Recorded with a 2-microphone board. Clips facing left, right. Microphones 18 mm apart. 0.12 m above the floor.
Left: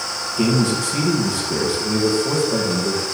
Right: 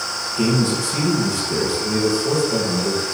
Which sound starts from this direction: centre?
A man speaking, at 0.4 s.